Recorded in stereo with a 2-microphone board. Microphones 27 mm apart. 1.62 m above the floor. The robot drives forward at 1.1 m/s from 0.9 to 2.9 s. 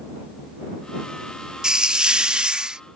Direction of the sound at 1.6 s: 30° right (ahead or behind).